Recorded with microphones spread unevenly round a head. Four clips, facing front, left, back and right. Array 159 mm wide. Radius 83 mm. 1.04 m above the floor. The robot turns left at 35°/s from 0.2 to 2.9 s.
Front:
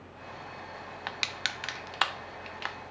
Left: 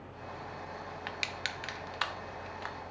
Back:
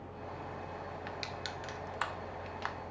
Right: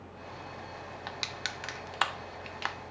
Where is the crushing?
Straight ahead, 0.7 m; by 2.8 s 60° right, 0.7 m.